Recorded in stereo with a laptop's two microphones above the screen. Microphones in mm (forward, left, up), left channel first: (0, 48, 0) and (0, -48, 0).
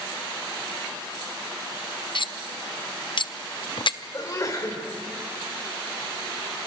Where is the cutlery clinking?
60° left (ahead or behind), 0.5 m.